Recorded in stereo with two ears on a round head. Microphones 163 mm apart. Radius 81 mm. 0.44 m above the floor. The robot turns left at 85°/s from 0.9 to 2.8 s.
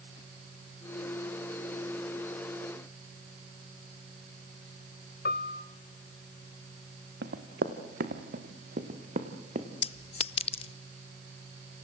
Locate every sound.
5.2 s a piano: 55° left (ahead or behind), 1.1 m
7.2 s running footsteps: 60° right (ahead or behind), 2.5 m; by 9.7 s 40° right (ahead or behind), 3.5 m
9.8 s a clink: 35° left (ahead or behind), 0.6 m